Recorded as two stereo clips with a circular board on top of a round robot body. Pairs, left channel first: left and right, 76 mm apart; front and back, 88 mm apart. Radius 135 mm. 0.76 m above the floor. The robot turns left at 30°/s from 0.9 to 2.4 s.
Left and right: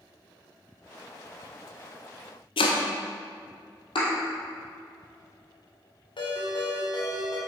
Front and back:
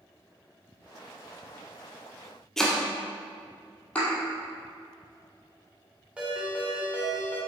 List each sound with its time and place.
2.6 s chopping: 85° left, 0.7 m
4.0 s a thud: 75° left, 2.5 m
6.2 s a ringtone: 100° left, 2 m